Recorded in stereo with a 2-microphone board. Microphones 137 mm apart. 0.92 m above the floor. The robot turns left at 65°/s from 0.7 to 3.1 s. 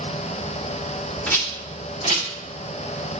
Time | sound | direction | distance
1.3 | a rattle | 10° left (ahead or behind) | 1.3 m